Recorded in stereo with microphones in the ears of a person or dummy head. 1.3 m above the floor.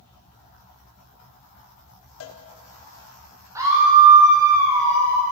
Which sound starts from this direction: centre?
A scream, at 3.5 s.